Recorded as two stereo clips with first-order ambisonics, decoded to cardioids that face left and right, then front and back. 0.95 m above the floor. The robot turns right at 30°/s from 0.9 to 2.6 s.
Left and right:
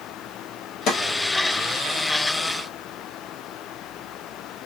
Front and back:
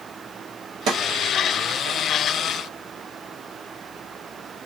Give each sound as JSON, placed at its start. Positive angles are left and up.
{"t": 0.9, "sound": "a snare drum", "azimuth_deg": 140, "distance_m": 1.1}